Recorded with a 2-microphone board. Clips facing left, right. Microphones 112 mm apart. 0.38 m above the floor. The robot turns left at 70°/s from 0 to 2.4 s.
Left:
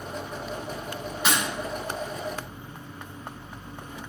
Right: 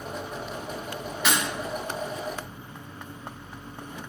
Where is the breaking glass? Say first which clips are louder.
Even; 35° left (ahead or behind), 1.3 m; by 1.4 s 25° left (ahead or behind), 1.3 m.